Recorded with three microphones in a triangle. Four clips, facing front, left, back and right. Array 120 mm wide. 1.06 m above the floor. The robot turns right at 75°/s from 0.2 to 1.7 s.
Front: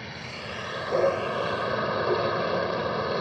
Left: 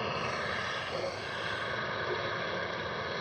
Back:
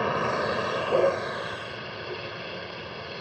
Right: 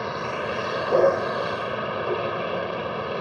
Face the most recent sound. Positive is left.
turn(degrees=-45)